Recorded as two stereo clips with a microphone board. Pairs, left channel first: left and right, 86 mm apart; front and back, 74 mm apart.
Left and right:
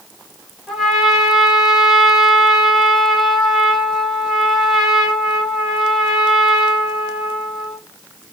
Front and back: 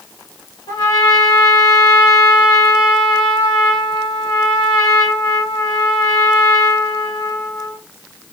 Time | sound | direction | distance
0.7 | a trumpet | straight ahead | 1.4 m